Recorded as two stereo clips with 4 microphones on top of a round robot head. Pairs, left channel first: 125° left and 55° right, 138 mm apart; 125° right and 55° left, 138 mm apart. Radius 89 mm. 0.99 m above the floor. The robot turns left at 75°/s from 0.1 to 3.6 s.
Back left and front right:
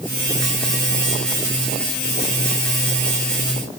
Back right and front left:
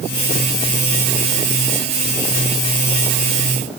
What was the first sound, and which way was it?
Only background noise.